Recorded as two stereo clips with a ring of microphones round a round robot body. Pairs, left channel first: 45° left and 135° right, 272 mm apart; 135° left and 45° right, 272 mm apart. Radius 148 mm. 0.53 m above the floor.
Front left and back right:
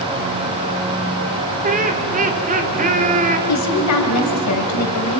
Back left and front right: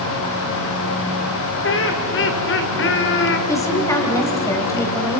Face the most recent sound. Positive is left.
turn(degrees=55)